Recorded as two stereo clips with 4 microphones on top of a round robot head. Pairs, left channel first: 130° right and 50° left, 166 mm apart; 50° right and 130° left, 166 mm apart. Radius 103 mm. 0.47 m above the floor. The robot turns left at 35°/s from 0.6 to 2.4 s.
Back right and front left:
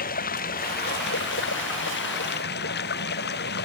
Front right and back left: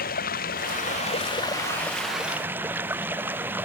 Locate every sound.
0.0 s running water: 90° right; by 3.7 s 155° right